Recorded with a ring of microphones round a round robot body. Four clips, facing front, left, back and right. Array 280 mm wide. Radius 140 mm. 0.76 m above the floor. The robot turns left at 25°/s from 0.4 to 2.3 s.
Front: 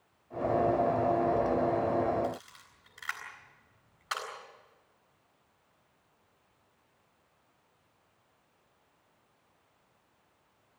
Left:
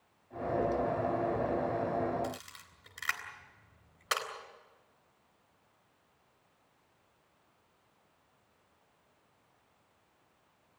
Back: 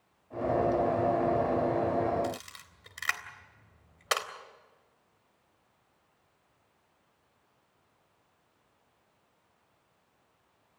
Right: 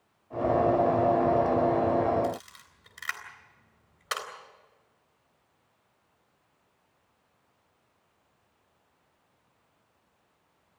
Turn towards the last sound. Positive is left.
turn(degrees=180)